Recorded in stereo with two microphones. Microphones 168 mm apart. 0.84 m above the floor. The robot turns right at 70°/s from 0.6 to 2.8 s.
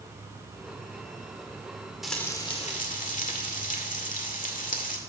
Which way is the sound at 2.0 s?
Straight ahead.